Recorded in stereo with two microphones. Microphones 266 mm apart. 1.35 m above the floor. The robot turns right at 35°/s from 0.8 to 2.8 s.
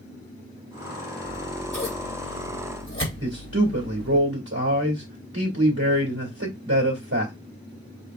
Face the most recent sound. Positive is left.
turn(degrees=-80)